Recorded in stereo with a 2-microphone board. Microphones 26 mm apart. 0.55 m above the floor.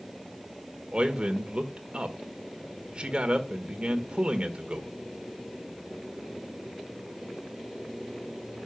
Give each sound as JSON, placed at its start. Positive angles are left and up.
{"t": 0.9, "sound": "a man speaking", "side_deg": -40, "distance_m": 1.4}